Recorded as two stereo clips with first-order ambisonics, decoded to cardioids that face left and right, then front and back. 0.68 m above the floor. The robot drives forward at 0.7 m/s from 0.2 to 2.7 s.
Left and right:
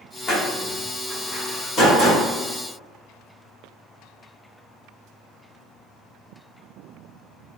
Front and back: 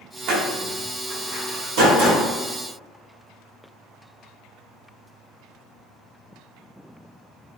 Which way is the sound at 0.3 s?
145° left.